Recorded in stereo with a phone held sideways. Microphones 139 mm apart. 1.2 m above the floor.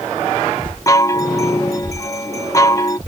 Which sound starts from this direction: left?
A chime, at 0.9 s.